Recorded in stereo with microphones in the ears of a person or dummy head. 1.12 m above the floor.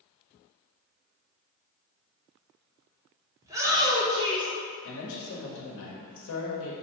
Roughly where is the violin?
No violin in this recording.